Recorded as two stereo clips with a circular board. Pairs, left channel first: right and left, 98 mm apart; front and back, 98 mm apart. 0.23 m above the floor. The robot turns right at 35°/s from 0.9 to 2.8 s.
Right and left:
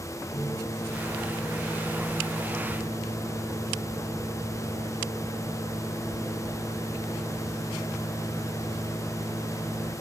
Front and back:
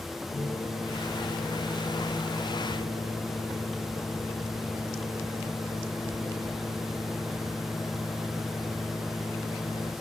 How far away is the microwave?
About 5 m.